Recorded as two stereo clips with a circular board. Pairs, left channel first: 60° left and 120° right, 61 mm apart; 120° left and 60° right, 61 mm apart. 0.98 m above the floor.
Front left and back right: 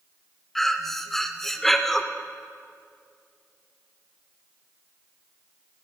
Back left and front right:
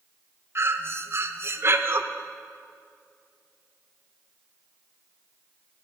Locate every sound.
0.6 s breathing: 25° right, 0.5 m